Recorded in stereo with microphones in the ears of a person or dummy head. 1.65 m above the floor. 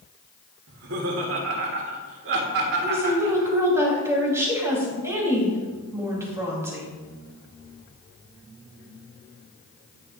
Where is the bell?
No bell in this recording.